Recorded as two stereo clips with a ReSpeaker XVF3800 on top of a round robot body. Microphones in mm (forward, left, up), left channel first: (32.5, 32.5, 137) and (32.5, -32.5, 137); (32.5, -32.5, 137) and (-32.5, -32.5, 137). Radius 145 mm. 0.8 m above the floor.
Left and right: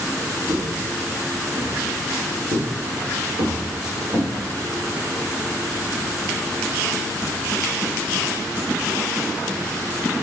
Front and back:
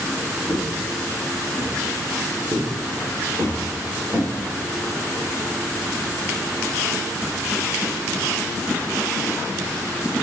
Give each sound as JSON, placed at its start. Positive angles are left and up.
{"t": 0.5, "sound": "footsteps", "azimuth_deg": -130, "distance_m": 1.9}